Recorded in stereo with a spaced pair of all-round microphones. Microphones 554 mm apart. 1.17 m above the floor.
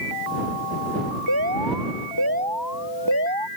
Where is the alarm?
40° right (ahead or behind).